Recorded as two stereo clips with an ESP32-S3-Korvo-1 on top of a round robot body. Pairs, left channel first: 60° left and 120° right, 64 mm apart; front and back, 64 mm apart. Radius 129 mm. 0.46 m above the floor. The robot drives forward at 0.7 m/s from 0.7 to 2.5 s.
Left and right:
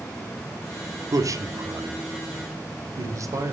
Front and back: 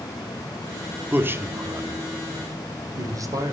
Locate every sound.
1.1 s a man speaking: 120° right, 1.1 m; by 3.5 s 155° right, 1.7 m